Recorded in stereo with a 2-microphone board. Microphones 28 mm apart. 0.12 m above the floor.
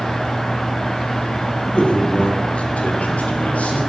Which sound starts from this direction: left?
A man speaking, at 1.7 s.